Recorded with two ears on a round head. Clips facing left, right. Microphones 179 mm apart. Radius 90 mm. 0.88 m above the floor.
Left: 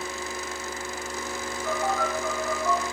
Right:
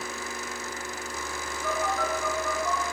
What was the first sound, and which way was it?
A phone buzzing, 40° right (ahead or behind).